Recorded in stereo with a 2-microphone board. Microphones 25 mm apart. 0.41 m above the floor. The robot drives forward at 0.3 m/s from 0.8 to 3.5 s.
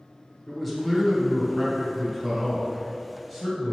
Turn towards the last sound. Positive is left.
turn(degrees=0)  # may be behind; listen again after turning